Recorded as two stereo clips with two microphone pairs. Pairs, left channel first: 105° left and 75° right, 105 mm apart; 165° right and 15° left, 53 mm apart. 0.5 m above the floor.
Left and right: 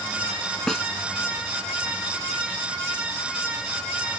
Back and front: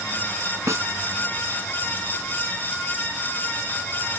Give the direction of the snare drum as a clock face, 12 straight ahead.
11 o'clock.